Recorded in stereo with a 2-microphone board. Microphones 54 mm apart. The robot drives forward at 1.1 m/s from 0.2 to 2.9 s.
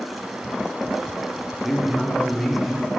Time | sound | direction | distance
1.6 | a man speaking | centre (ahead or behind) | 1.1 m